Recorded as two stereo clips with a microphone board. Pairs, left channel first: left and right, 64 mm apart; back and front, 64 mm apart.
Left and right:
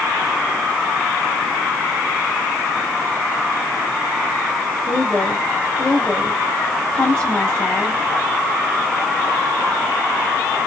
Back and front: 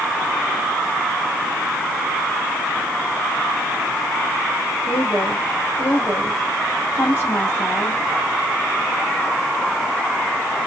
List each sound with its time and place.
4.9 s a woman speaking: 145° left, 1.4 m